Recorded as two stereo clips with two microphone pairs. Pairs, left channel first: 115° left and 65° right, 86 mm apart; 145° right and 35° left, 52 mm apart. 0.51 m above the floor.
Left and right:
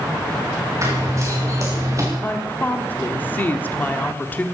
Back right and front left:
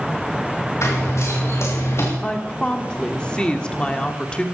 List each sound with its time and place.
0.8 s running footsteps: 120° right, 5.5 m; by 2.1 s 115° right, 4 m
2.2 s a woman speaking: 160° left, 1.4 m